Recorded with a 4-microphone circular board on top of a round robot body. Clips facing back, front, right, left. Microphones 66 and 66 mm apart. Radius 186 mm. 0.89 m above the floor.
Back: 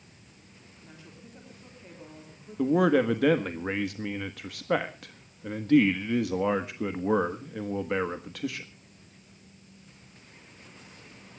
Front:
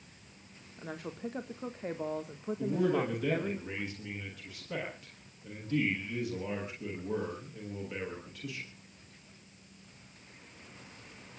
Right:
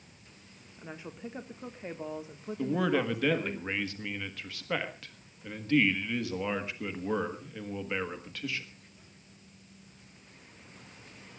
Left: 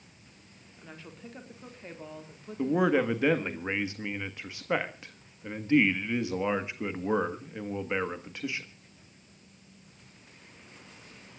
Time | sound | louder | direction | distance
0.8 | a woman speaking | front 12 dB, right 4 dB | 20° right | 1.7 m
2.6 | a man speaking | back 8 dB, left 4 dB | 160° left | 1.7 m